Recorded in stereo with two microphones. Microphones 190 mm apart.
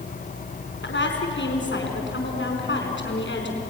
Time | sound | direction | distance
0.8 | a woman speaking | 80° left | 4.5 m